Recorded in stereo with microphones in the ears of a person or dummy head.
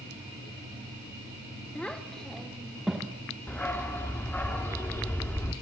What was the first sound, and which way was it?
A child speaking, 5° left (ahead or behind).